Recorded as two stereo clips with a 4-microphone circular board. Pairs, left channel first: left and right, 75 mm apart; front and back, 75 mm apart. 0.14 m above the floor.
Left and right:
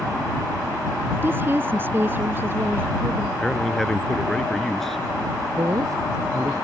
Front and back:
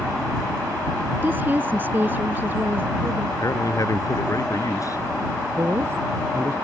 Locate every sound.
1.2 s a woman speaking: 135° right
3.4 s a man speaking: 10° left
5.5 s a woman speaking: 125° right